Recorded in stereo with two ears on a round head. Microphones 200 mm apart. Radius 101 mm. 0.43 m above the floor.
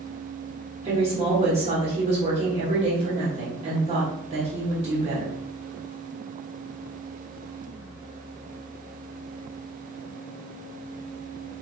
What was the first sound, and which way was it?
A woman speaking, 30° right (ahead or behind).